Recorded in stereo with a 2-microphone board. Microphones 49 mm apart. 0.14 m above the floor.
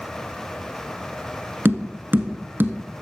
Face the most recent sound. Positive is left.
turn(degrees=-45)  # may be behind; listen again after turning